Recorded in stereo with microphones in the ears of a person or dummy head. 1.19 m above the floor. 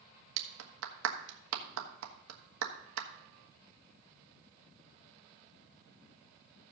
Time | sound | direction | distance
0.4 | a clap | 85° right | 1.3 m